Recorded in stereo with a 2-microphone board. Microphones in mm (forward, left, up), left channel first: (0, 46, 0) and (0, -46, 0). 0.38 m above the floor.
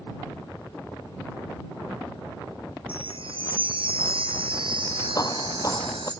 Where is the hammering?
40° left (ahead or behind).